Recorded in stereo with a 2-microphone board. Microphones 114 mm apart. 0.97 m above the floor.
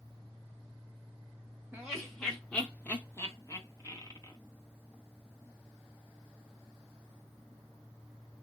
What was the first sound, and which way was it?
Laughter, 5° right (ahead or behind).